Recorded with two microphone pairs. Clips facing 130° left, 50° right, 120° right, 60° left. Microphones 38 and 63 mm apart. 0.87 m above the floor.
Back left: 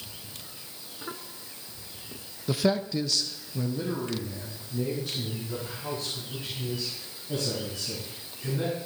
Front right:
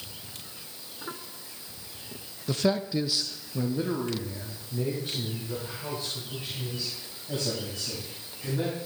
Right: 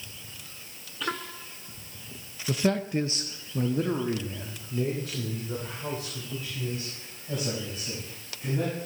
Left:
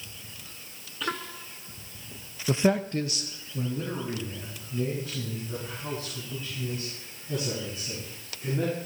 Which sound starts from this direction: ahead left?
A man speaking, at 2.5 s.